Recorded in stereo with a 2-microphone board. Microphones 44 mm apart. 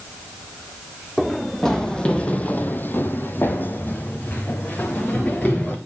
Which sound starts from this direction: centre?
Running footsteps, at 1.2 s.